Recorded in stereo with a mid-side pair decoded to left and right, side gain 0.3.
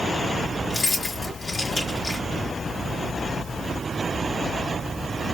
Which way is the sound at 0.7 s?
40° left.